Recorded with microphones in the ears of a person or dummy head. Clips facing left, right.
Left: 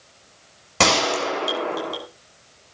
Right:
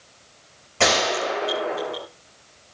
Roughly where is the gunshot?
Left.